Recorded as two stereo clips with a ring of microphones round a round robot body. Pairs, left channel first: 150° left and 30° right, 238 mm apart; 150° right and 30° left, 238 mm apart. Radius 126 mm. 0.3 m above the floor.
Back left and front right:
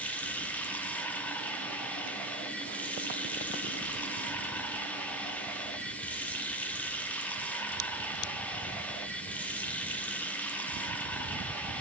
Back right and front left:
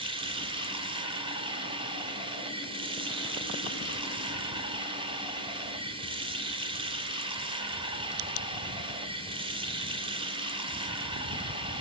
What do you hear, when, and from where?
0.0 s running water: 75° left, 0.8 m